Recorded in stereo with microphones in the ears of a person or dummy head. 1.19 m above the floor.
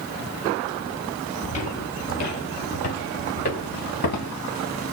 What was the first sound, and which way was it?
Footsteps, 40° left (ahead or behind).